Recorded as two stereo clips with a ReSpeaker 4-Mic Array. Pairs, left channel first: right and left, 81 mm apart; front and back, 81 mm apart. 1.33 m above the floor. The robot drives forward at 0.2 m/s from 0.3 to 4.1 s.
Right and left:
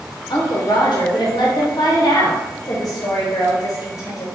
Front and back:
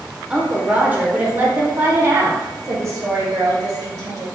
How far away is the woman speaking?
About 0.9 m.